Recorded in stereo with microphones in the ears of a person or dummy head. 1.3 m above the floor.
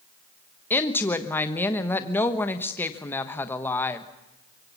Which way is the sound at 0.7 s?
15° left (ahead or behind).